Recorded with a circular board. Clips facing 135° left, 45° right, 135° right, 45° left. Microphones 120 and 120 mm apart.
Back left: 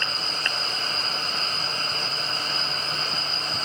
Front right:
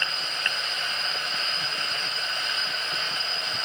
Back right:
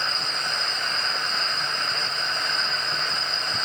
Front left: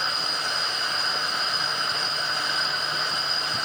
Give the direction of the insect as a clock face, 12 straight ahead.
3 o'clock.